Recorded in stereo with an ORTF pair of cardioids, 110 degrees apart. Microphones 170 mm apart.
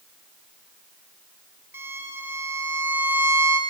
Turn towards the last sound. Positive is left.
turn(degrees=-15)